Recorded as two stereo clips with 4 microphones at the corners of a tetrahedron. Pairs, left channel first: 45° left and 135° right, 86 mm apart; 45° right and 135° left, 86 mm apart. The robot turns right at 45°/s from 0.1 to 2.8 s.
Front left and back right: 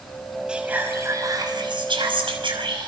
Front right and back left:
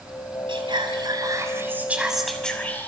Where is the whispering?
145° left, 6 m; by 2.9 s 110° right, 6 m.